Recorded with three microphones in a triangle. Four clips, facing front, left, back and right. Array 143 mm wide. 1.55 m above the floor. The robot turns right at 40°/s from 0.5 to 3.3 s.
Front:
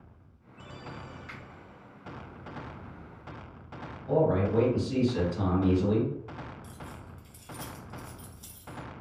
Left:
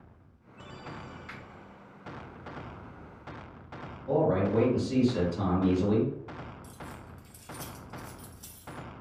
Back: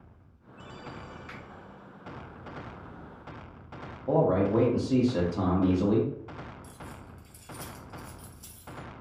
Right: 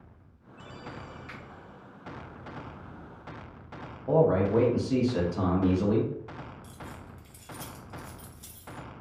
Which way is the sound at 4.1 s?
150° right.